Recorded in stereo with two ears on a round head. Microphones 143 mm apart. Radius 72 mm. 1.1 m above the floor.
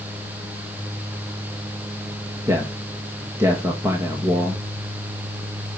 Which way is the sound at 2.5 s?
20° right (ahead or behind).